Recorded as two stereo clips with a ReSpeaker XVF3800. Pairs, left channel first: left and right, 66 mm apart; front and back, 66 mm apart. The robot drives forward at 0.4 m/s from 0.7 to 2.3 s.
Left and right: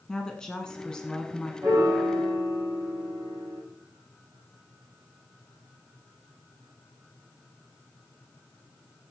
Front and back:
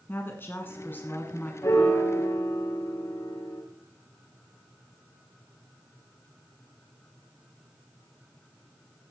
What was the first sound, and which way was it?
A woman speaking, 20° left.